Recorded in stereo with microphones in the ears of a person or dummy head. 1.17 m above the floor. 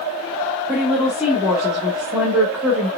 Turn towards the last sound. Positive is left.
turn(degrees=-10)  # may be behind; listen again after turning